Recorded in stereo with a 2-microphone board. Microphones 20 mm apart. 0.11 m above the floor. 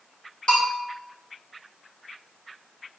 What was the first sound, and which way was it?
A bell, 40° left (ahead or behind).